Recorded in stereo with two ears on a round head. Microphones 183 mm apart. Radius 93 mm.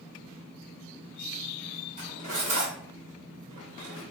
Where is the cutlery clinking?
35° right (ahead or behind), 1.2 m.